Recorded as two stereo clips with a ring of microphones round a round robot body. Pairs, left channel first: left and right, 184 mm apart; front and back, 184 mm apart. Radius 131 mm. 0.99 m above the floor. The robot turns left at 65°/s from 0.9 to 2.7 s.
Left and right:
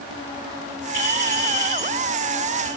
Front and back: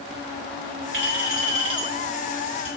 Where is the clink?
170° left, 7.5 m; by 2.7 s 55° left, 7.5 m.